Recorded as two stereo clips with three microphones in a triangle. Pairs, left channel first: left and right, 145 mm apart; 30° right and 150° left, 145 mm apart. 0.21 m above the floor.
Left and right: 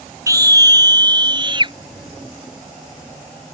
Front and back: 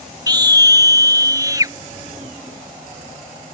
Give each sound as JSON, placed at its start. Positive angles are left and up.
{"t": 0.3, "sound": "a scream", "azimuth_deg": -155}